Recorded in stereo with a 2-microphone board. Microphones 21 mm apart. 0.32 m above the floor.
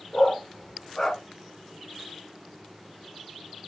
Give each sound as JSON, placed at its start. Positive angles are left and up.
{"t": 0.1, "sound": "a dog barking", "side_deg": 25, "distance_m": 1.5}